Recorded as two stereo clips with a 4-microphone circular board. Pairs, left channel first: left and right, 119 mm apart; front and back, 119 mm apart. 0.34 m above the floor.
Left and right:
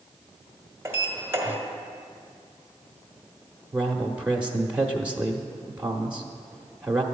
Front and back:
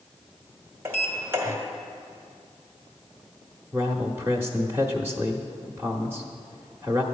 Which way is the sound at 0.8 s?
135° right.